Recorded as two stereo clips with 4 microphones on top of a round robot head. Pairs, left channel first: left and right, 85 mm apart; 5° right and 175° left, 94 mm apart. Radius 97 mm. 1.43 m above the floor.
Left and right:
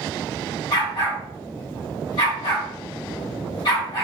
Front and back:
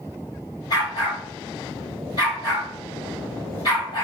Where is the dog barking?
35° left, 3 m.